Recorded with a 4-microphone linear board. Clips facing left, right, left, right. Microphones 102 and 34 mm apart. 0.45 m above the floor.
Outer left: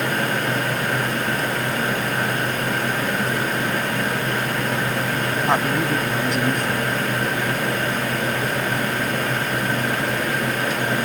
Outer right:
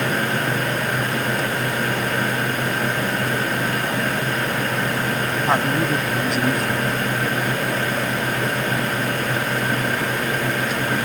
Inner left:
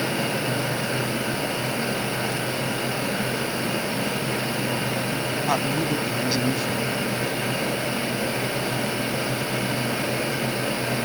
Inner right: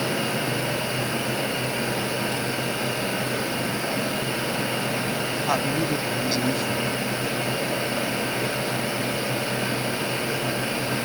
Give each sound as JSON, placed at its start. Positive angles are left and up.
{"t": 5.5, "sound": "a man speaking", "side_deg": 0}